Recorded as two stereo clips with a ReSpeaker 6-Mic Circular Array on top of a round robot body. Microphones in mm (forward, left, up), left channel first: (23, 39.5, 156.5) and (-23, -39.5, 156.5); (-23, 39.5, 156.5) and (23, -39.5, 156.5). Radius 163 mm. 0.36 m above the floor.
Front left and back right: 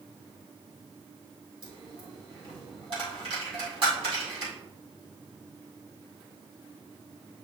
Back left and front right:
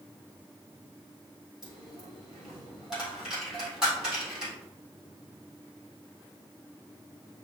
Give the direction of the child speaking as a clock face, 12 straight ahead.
No child speaking in this recording.